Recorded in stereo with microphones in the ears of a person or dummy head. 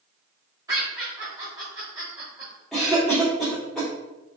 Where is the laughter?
20° right (ahead or behind), 1.0 m.